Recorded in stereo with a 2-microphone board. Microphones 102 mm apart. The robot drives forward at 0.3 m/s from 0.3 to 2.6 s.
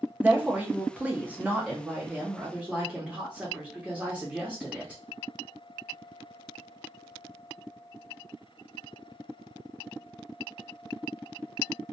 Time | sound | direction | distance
0.2 | a woman speaking | 15° right (ahead or behind) | 0.6 m